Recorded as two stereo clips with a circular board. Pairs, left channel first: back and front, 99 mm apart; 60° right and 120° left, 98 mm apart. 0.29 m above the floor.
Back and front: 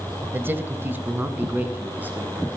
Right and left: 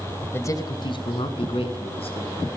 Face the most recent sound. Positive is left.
turn(degrees=-75)